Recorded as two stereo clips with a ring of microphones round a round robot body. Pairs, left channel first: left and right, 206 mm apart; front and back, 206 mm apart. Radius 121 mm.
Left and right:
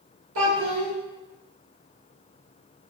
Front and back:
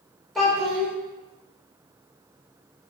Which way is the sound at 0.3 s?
90° right.